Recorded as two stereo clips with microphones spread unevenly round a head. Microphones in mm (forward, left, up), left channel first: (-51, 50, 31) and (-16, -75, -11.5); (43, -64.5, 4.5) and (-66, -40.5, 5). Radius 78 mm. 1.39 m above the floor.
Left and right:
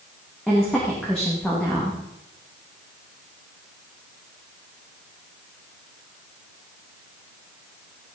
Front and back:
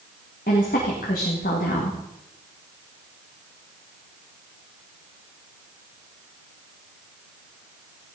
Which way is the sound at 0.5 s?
20° left.